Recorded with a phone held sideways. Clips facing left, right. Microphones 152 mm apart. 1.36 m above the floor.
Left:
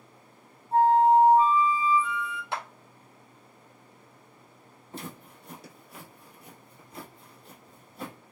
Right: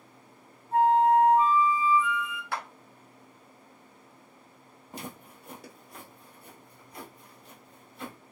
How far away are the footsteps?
About 1.7 m.